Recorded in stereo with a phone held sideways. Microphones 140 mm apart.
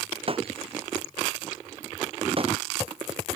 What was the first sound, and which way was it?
Breaking glass, 40° right (ahead or behind).